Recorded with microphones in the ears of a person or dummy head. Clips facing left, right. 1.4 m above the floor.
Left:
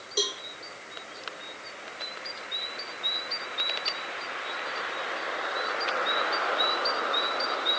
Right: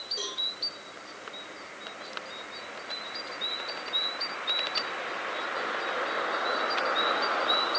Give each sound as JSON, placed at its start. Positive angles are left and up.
{"t": 0.2, "sound": "a cowbell", "side_deg": 75, "distance_m": 5.0}